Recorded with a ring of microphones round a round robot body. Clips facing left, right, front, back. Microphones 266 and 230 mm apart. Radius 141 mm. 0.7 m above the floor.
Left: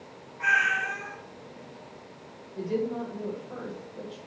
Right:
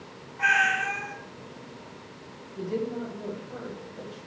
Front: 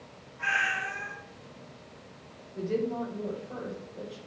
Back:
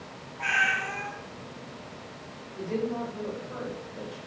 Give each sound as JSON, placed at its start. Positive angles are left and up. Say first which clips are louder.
{"t": 0.4, "sound": "a cat meowing", "louder": "right 4 dB, back 3 dB", "azimuth_deg": -75, "distance_m": 1.6}
{"t": 2.5, "sound": "a woman speaking", "louder": "left 1 dB, even", "azimuth_deg": 45, "distance_m": 2.0}